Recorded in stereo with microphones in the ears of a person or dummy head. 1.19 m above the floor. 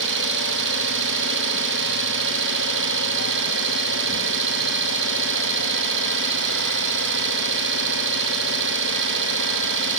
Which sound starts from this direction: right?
An engine running, at 0.0 s.